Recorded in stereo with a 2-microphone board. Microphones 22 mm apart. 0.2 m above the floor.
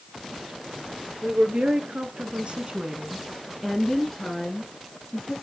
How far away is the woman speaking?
About 3 m.